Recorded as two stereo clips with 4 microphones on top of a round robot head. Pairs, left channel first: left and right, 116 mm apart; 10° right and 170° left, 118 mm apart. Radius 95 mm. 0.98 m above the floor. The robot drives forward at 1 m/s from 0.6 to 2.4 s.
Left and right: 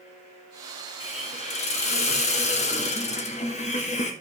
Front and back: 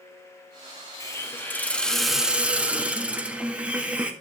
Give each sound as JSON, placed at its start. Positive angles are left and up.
{"t": 1.0, "sound": "a hiss", "azimuth_deg": 55, "distance_m": 2.5}